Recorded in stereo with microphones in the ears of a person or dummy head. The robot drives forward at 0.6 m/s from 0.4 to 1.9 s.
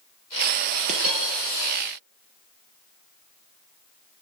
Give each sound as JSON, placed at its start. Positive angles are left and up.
{"t": 0.9, "sound": "a dropped coin", "side_deg": -40, "distance_m": 4.5}